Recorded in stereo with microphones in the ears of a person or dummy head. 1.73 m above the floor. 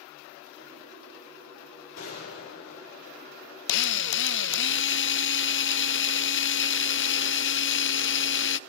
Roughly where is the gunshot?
Left.